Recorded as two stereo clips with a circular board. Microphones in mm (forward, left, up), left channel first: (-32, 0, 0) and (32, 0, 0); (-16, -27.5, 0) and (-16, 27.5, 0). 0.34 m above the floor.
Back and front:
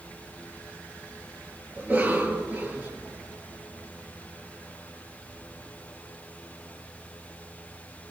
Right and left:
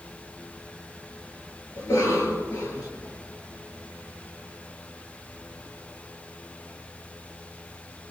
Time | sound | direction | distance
1.8 | a cough | 70° right | 5.5 m